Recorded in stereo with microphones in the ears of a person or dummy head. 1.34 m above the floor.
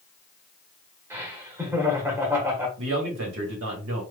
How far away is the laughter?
About 1.2 m.